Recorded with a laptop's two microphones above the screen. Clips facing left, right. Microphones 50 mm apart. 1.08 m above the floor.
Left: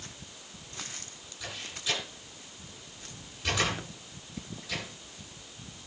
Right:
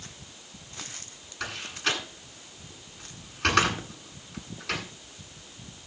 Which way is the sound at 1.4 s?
80° right.